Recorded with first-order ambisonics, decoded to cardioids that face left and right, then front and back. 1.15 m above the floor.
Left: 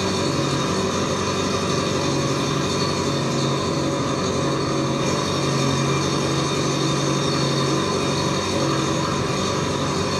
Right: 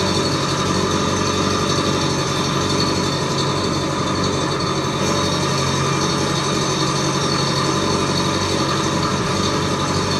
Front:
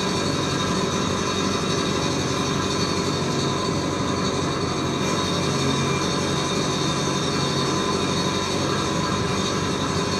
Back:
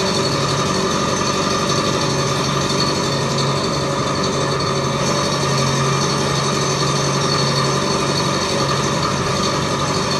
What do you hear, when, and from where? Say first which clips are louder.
0.0 s an engine running: right 3 dB, back 6 dB; 150° right, 1.4 m